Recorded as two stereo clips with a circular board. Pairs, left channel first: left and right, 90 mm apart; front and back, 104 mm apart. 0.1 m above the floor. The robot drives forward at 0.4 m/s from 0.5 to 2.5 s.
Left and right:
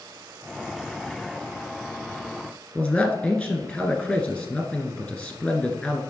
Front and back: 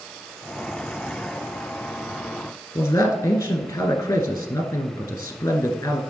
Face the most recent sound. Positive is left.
turn(degrees=30)